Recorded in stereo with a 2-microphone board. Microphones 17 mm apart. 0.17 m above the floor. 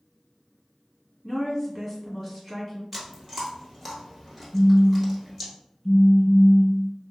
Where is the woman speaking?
10° right (ahead or behind), 1.7 m.